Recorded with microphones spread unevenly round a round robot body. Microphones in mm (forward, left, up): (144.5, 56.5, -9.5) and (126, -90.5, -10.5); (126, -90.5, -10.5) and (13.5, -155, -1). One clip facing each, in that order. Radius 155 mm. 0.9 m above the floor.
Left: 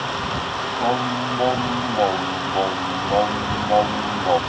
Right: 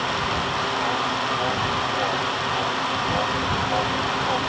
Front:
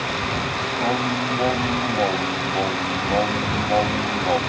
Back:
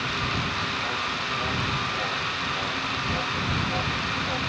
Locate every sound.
0.8 s singing: 55° left